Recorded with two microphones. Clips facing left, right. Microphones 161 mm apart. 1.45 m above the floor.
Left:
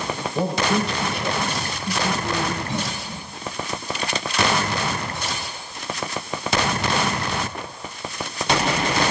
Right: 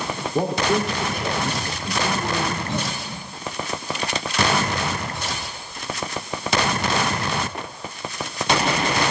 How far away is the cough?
About 9.5 m.